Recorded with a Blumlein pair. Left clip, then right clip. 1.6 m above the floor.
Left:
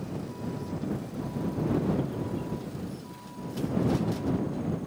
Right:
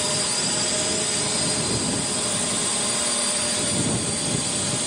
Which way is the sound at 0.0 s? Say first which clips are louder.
Right 14 dB; 45° right.